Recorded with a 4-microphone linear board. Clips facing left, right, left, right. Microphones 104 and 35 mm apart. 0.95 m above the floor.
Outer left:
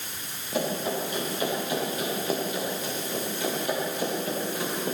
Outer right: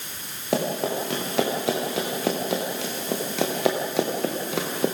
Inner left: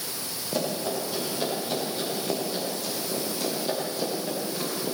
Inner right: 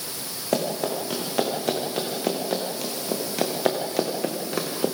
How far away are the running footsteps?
About 10 m.